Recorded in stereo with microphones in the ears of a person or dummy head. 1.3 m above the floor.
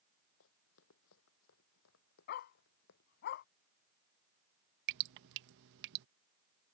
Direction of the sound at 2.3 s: 55° left (ahead or behind).